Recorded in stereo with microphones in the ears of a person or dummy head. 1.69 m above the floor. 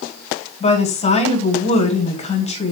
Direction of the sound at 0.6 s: 35° left (ahead or behind).